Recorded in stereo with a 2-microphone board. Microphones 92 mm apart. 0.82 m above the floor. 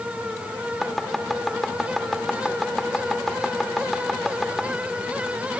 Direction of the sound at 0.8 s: Centre (ahead or behind).